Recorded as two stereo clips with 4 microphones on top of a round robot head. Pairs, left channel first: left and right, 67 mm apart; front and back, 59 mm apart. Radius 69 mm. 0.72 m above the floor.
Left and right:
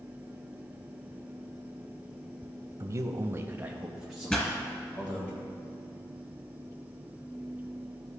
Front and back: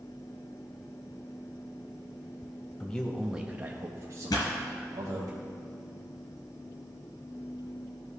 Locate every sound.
2.8 s a man speaking: 65° right, 0.8 m; by 5.3 s 165° left, 1.5 m
4.3 s a pop: 15° left, 1.9 m